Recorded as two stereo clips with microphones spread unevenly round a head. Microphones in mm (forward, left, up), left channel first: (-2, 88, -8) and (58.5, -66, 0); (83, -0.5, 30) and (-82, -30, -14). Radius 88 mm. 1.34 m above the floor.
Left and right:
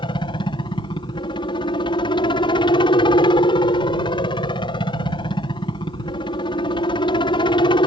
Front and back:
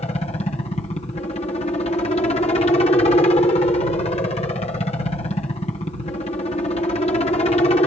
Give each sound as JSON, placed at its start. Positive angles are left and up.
{"t": 0.0, "sound": "a helicopter", "azimuth_deg": 65}